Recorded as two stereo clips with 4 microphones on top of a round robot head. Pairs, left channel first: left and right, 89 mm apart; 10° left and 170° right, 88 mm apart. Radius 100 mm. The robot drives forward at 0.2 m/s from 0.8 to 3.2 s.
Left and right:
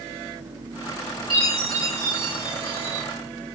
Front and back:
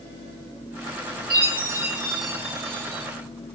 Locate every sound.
1.3 s a chime: 125° right, 2 m; by 3.0 s 135° right, 2.5 m